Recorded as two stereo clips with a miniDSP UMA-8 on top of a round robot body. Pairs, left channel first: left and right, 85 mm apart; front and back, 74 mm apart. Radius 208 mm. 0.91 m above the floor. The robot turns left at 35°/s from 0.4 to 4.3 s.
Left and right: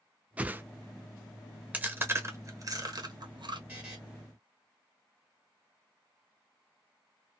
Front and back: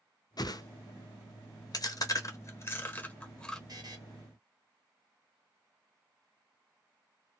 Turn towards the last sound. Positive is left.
turn(degrees=175)